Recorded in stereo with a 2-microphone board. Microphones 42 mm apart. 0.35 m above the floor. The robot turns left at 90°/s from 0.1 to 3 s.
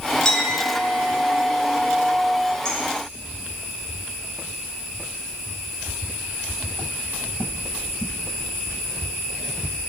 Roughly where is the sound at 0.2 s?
Behind.